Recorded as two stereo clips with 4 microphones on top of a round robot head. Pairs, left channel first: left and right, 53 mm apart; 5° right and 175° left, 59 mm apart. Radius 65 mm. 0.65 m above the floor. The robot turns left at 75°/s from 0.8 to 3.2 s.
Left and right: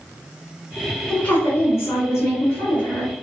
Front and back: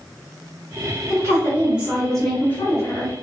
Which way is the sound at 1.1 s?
155° left.